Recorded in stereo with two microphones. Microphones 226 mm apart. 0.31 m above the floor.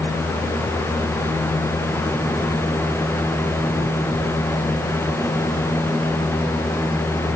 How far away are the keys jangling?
I don't hear keys jangling.